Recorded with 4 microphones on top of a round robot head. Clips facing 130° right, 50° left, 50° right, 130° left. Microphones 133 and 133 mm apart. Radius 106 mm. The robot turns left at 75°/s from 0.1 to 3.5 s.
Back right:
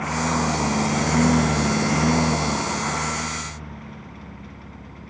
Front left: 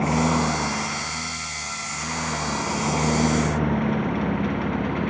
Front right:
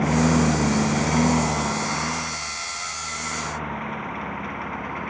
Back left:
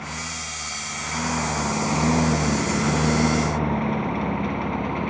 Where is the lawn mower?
10° right; by 5.1 s 65° left.